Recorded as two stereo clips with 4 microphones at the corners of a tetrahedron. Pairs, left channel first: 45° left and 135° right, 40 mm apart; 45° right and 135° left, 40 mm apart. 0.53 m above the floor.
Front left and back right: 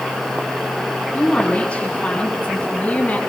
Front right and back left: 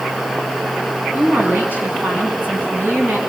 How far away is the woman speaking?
About 6.5 m.